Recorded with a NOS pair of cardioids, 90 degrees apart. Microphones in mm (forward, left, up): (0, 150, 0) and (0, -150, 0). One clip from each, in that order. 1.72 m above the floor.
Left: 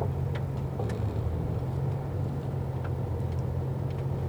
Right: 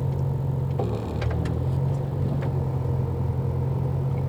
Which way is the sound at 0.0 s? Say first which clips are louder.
Right 2 dB; 55° right.